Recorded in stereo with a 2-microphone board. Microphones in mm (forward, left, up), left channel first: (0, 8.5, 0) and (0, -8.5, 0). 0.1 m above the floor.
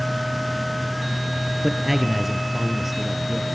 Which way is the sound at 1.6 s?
Centre (ahead or behind).